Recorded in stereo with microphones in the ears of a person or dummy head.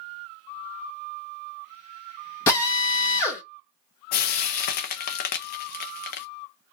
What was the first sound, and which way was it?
A drill, 15° left (ahead or behind).